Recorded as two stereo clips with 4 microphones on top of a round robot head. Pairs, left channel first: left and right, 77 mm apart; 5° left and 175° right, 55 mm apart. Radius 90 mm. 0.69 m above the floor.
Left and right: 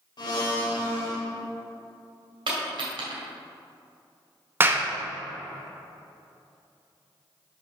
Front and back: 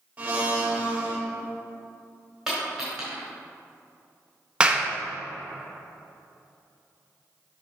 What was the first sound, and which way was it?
A blender, 120° left.